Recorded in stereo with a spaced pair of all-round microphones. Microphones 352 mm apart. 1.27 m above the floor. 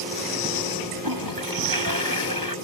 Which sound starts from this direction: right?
A toilet flushing, at 1.0 s.